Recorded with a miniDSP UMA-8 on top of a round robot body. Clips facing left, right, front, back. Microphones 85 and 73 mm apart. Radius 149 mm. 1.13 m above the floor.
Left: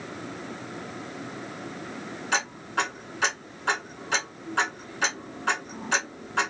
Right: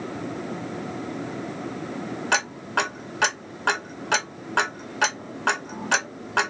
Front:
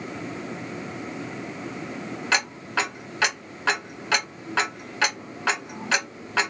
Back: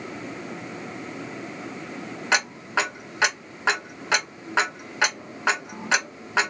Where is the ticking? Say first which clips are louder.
Right 3 dB, back 2 dB; 110° right, 1.6 m.